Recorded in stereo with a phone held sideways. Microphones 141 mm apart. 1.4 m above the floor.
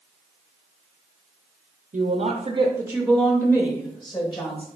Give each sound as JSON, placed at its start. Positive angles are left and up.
{"t": 1.9, "sound": "a woman speaking", "side_deg": -75, "distance_m": 0.7}